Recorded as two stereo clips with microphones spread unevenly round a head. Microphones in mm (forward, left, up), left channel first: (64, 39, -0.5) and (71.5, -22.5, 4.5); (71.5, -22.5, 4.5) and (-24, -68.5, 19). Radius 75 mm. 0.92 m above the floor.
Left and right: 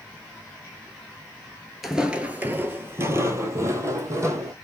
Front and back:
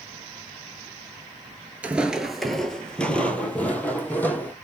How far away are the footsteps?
About 0.9 m.